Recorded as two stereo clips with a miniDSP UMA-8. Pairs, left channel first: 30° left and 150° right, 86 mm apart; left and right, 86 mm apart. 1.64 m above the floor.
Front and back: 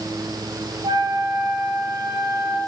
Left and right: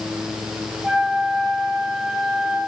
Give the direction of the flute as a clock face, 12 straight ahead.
6 o'clock.